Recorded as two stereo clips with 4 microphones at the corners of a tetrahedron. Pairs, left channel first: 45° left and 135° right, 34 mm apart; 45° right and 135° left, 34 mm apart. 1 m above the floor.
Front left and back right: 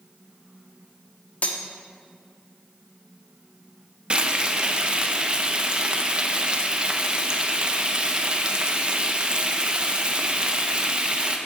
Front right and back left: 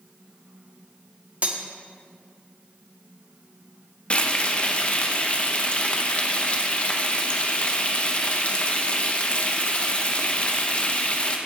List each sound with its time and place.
1.4 s cutlery clinking: 85° left, 1.2 m
4.1 s frying: 85° right, 1.0 m